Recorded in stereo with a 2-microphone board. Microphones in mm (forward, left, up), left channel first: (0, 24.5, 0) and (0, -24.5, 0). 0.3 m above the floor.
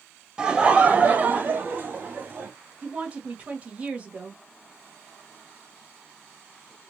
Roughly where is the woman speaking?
Right.